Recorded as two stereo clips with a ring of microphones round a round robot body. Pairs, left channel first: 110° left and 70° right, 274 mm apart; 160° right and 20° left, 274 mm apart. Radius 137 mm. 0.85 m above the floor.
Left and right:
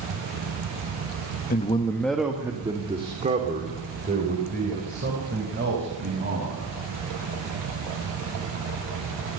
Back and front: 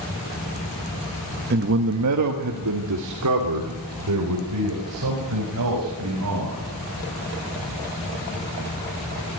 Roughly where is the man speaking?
Ahead left.